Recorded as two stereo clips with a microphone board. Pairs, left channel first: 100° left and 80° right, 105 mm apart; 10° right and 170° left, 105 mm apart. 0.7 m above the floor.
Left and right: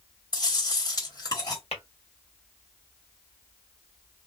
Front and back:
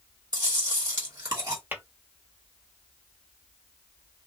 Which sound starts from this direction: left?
Tapping, at 1.7 s.